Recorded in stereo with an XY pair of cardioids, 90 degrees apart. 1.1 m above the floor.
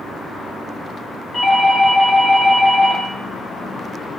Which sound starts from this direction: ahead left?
A doorbell, at 1.3 s.